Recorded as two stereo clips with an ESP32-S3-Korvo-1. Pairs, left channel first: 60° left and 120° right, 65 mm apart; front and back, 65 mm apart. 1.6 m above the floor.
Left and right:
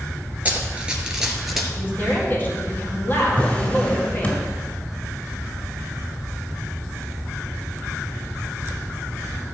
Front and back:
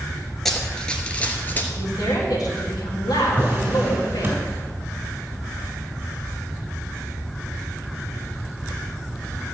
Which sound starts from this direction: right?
Running footsteps, at 0.5 s.